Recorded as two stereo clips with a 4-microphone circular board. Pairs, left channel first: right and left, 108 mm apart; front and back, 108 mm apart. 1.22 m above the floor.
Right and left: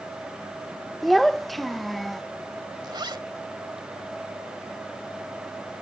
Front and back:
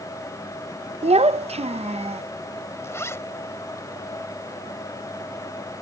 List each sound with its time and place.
1.0 s a child speaking: straight behind
2.8 s a zipper: 55° left